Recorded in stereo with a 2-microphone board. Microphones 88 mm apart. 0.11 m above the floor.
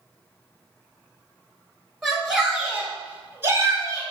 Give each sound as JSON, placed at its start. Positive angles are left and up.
{"t": 2.0, "sound": "a shout", "side_deg": 0, "distance_m": 1.5}